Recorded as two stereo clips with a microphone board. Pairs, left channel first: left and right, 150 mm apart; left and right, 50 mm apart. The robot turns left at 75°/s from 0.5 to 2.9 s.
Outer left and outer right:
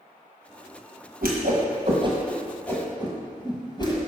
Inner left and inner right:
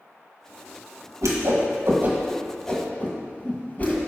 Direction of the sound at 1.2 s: 85° right.